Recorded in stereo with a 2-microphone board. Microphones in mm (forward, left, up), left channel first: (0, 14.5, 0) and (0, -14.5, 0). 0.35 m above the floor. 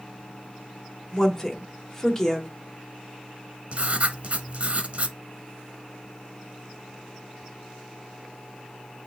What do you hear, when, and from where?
1.1 s a woman speaking: 15° left (ahead or behind), 0.9 m
3.7 s writing: 45° right (ahead or behind), 0.8 m